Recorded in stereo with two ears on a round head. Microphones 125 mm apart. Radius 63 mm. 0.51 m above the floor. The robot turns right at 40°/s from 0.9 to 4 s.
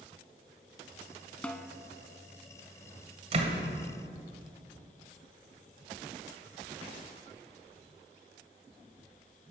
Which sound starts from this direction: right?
A door slam, at 3.3 s.